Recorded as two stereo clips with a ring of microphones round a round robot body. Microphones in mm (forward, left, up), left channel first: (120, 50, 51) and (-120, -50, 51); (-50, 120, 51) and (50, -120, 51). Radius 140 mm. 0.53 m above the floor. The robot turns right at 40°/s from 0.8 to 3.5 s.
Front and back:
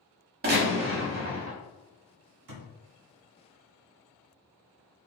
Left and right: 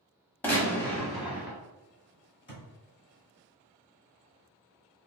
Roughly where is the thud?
Behind.